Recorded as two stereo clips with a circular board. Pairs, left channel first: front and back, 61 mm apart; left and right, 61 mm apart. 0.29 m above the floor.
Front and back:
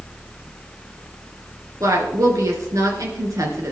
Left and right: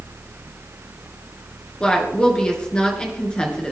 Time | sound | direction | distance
1.8 | a woman speaking | 160° left | 3.5 m